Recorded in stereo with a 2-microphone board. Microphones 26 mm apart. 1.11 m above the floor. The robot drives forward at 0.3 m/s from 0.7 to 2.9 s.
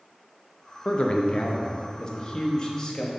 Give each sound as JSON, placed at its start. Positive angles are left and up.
{"t": 0.8, "sound": "a man speaking", "side_deg": 40, "distance_m": 0.9}